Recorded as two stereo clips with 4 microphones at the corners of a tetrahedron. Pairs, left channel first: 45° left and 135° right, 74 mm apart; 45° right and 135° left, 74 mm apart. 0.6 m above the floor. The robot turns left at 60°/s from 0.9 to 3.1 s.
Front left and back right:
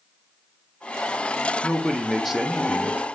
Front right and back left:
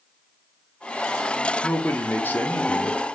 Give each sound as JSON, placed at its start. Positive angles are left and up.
{"t": 1.6, "sound": "a man speaking", "azimuth_deg": -10, "distance_m": 1.3}